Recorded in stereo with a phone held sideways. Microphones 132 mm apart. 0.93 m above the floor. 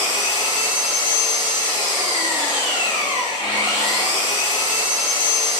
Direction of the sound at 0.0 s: 40° left (ahead or behind).